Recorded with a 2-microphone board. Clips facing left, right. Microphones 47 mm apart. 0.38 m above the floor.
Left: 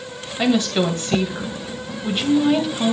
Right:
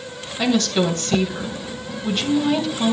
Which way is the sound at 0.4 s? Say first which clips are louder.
Left 1 dB; 15° left (ahead or behind).